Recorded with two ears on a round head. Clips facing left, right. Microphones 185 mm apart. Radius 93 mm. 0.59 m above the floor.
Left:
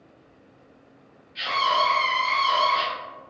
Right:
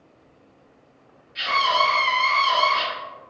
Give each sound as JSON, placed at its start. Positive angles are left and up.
{"t": 1.4, "sound": "a scream", "side_deg": -10, "distance_m": 1.7}